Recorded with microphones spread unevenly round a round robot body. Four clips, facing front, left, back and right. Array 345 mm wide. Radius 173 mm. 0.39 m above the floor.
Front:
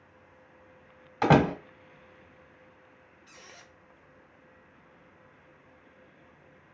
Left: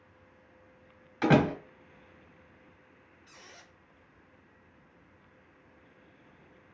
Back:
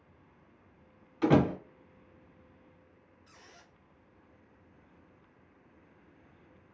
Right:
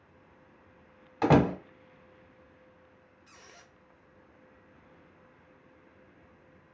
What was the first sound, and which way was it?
A door slam, 35° right.